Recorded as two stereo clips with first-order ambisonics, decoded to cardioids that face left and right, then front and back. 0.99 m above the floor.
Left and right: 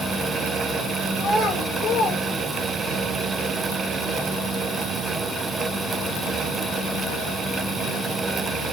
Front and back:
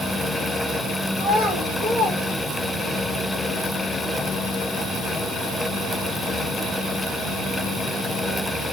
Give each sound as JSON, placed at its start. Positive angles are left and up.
{"t": 1.2, "sound": "a child speaking", "azimuth_deg": 145, "distance_m": 1.4}